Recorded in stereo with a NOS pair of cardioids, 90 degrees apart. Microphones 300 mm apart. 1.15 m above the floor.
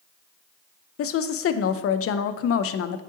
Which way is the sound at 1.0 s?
55° left.